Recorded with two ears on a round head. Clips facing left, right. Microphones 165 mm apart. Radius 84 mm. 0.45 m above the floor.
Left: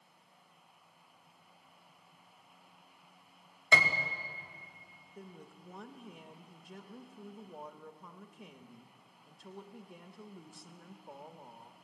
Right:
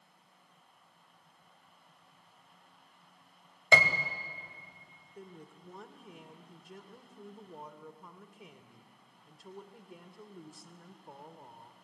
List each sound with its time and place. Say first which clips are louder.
3.7 s a piano: right 4 dB; 65° right (ahead or behind), 1.6 m
5.2 s a woman speaking: right 1 dB; centre (ahead or behind), 1.1 m